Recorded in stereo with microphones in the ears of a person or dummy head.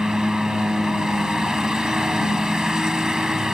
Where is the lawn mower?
10° right (ahead or behind).